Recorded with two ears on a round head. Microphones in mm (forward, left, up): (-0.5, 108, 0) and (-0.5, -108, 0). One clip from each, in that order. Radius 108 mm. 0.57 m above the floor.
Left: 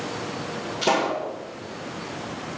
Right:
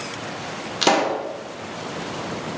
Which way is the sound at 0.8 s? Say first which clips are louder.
Right 4 dB; 50° right (ahead or behind).